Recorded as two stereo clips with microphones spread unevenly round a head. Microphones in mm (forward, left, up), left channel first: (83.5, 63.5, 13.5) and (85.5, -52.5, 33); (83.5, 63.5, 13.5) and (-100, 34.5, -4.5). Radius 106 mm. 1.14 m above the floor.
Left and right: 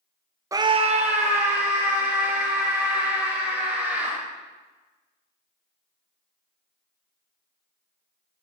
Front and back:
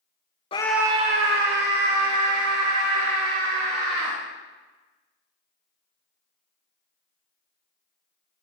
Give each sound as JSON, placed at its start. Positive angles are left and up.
{"t": 0.5, "sound": "a scream", "azimuth_deg": -35, "distance_m": 0.5}